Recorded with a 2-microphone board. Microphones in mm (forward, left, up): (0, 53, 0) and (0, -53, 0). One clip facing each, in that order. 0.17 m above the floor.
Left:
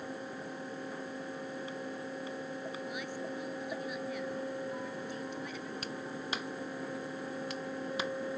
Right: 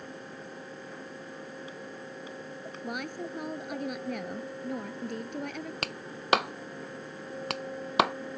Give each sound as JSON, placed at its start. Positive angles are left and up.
{"t": 2.8, "sound": "a woman speaking", "side_deg": -65}
{"t": 5.8, "sound": "a clap", "side_deg": -75}